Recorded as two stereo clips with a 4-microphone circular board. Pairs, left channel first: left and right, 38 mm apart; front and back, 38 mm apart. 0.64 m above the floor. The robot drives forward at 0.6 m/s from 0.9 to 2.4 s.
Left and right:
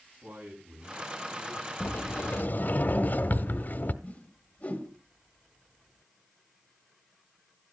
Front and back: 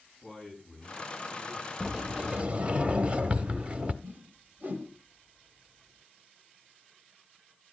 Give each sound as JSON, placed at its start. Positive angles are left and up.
{"t": 0.2, "sound": "a man speaking", "azimuth_deg": -85, "distance_m": 5.5}
{"t": 1.8, "sound": "a sliding door", "azimuth_deg": 100, "distance_m": 0.8}
{"t": 4.0, "sound": "a whoosh", "azimuth_deg": 140, "distance_m": 2.0}